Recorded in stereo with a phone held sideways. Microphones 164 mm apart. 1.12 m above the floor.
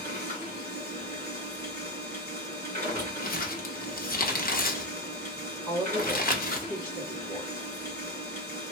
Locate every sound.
0.0 s a machine running: 70° right (ahead or behind), 2 m
3.2 s crumpling: 65° left (ahead or behind), 0.6 m
5.7 s a woman speaking: 25° right (ahead or behind), 2 m